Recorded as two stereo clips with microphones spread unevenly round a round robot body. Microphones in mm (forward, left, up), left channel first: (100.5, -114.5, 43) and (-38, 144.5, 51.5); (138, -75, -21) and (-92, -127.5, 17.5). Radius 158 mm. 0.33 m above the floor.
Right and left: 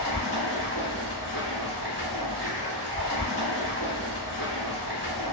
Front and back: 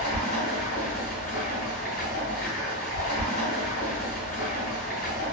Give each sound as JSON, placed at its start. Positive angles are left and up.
{"t": 0.0, "sound": "running water", "azimuth_deg": -5, "distance_m": 1.4}